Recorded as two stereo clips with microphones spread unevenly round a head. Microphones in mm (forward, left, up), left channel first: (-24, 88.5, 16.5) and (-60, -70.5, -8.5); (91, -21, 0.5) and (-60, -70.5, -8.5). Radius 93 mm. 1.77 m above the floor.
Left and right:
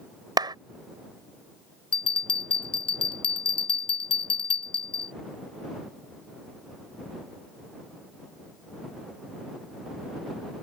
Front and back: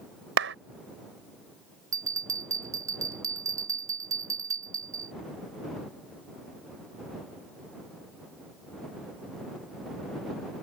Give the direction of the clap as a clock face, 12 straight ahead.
6 o'clock.